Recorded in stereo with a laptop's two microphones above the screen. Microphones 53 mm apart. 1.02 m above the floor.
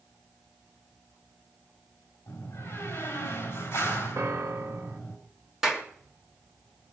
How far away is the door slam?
About 4.5 m.